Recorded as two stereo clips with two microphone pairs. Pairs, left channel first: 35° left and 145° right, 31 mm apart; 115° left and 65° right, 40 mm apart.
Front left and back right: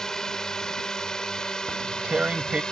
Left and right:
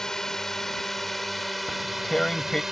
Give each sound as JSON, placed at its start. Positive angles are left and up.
{"t": 0.0, "sound": "a drone", "azimuth_deg": 65}
{"t": 1.7, "sound": "tearing paper", "azimuth_deg": -175}